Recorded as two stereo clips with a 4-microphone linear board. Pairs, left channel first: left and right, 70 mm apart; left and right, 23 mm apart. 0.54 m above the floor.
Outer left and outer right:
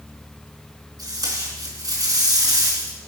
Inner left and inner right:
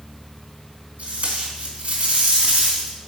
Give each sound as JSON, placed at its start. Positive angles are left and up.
{"t": 1.0, "sound": "tape being pulled", "side_deg": -80, "distance_m": 3.5}